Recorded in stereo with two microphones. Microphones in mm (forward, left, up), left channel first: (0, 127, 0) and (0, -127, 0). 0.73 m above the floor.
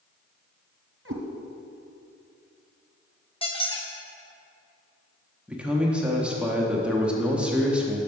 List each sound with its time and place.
1.1 s a cat meowing: 50° right (ahead or behind), 1.3 m
3.4 s a squeak: 20° left (ahead or behind), 0.7 m
5.5 s a man speaking: 5° right (ahead or behind), 0.8 m